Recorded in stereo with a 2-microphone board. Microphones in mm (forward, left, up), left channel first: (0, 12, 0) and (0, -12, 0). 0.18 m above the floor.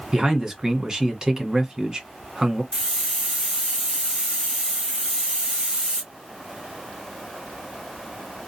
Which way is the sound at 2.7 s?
40° right (ahead or behind).